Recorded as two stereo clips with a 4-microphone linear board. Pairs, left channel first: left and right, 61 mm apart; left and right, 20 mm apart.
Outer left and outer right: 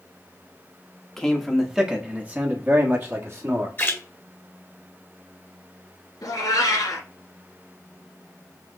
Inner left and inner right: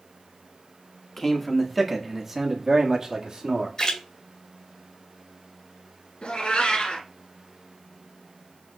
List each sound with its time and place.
1.2 s a man speaking: 5° left (ahead or behind), 1.1 m; by 3.7 s 50° right (ahead or behind), 1.7 m
3.8 s a splash: 35° left (ahead or behind), 1.8 m
6.2 s a cat meowing: 75° left (ahead or behind), 2 m